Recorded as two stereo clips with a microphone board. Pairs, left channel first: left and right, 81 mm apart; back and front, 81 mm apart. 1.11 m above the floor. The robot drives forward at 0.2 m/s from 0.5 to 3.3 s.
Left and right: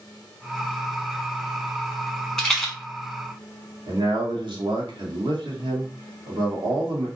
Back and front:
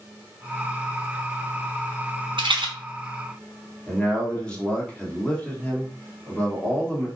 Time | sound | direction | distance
2.4 | a rattle | 5° left | 0.7 m
3.9 | a man speaking | 105° right | 0.9 m